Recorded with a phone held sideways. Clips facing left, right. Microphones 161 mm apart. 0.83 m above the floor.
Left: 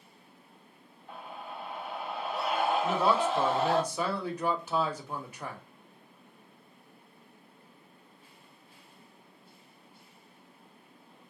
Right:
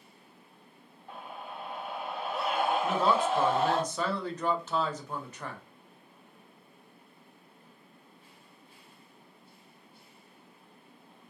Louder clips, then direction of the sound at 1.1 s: Even; 50° right (ahead or behind).